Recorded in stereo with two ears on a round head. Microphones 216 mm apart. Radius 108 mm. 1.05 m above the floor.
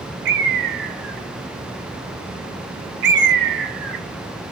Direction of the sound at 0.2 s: 45° right (ahead or behind).